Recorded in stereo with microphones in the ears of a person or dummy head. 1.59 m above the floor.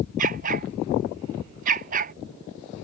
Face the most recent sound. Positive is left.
turn(degrees=-45)  # may be behind; listen again after turning